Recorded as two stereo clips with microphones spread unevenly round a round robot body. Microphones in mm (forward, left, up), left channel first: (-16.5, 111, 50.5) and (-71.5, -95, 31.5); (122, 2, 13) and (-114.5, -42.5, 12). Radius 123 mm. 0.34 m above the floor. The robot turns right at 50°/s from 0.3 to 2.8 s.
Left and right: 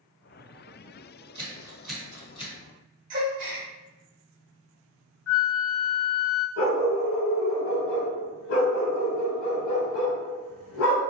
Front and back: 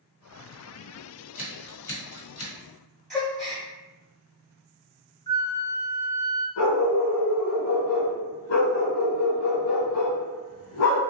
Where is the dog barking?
45° left, 1.1 m.